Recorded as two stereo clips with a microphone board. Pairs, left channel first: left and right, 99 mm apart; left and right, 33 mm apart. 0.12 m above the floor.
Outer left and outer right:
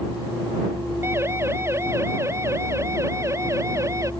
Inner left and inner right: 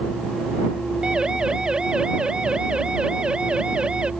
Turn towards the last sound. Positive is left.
turn(degrees=-30)  # may be behind; listen again after turning